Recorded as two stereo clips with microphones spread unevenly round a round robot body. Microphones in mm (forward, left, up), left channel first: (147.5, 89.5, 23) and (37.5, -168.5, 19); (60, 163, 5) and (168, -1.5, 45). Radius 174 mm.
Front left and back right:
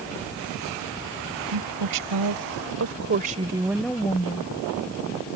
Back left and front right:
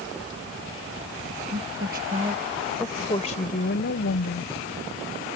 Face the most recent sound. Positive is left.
turn(degrees=135)